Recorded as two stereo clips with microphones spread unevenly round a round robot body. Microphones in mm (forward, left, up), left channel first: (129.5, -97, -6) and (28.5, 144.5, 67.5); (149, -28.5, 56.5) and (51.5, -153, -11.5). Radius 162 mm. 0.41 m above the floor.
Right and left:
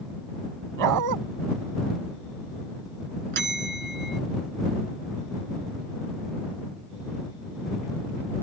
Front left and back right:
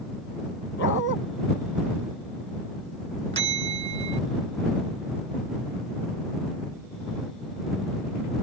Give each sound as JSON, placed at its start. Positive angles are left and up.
{"t": 0.8, "sound": "a dog barking", "azimuth_deg": 105}
{"t": 3.3, "sound": "a bell", "azimuth_deg": 175}